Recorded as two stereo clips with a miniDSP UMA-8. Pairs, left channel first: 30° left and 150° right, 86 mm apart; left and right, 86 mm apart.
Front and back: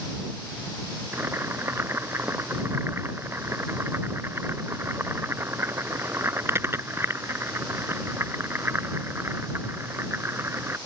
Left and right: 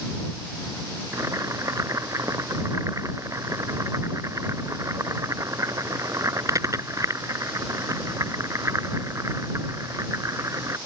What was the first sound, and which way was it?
Boiling, 110° right.